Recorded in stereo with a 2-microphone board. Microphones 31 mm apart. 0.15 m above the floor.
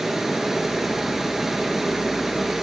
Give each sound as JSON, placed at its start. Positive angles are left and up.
{"t": 0.0, "sound": "running water", "side_deg": -10, "distance_m": 1.8}